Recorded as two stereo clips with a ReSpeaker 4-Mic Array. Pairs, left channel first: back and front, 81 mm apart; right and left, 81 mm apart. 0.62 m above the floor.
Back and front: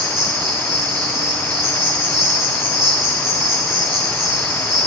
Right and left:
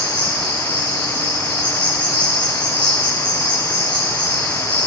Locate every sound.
0.0 s an insect: 25° left, 4.5 m